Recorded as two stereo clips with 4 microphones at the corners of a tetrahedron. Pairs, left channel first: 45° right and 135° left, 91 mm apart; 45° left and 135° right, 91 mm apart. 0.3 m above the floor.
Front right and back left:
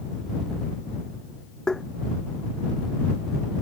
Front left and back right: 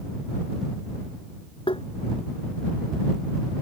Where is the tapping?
35° left.